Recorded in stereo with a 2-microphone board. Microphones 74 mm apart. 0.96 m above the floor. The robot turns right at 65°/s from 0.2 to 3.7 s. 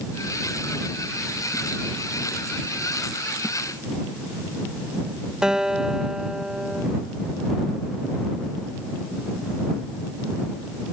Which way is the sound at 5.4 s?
10° right (ahead or behind).